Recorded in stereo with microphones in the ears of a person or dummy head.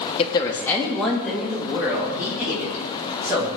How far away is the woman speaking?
About 0.9 m.